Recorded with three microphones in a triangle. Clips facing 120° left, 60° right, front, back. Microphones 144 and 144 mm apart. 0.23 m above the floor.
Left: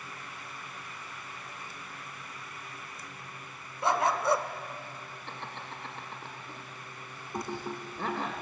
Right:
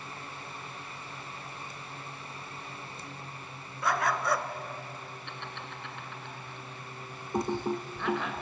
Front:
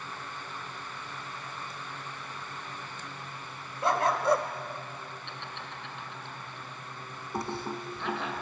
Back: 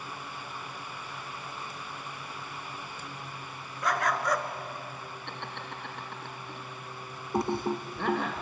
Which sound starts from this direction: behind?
Laughter, at 5.3 s.